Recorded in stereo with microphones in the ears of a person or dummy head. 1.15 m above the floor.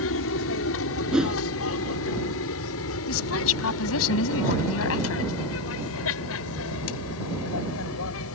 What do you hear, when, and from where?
0.0 s an aircraft: 70° left (ahead or behind); by 8.3 s 75° left (ahead or behind)
1.1 s a whoosh: 5° right (ahead or behind)
3.1 s a woman speaking: 75° left (ahead or behind)